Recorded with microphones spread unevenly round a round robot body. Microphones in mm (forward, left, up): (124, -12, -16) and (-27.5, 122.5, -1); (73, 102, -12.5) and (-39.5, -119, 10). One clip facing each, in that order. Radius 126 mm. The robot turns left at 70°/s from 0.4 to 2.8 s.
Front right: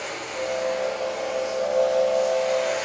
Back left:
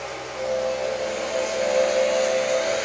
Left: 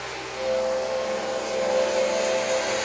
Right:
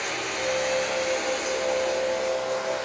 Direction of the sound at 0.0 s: 100° right.